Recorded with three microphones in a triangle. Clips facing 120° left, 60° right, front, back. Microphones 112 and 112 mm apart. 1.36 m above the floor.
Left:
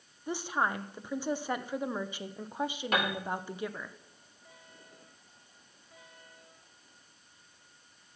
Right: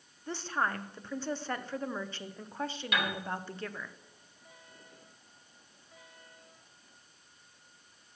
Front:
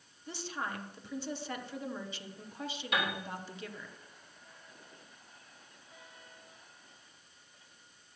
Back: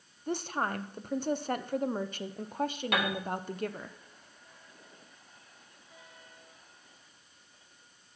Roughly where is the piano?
Behind.